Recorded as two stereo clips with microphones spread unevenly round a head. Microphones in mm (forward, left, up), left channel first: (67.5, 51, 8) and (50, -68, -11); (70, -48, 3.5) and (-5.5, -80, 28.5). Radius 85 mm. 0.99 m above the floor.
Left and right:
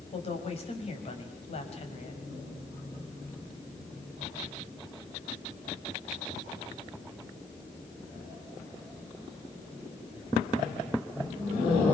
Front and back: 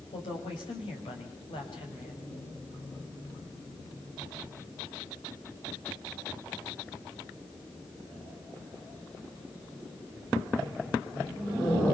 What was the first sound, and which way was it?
A woman speaking, 50° left.